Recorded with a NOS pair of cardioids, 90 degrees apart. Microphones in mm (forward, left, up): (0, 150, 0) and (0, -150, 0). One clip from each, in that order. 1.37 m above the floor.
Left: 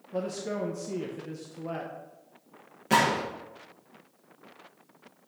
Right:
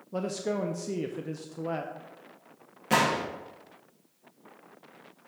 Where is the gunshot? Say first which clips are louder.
Left 1 dB; straight ahead, 1.5 m.